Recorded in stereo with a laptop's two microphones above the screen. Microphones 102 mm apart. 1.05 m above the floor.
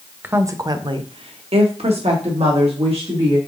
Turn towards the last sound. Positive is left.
turn(degrees=-70)  # may be behind; listen again after turning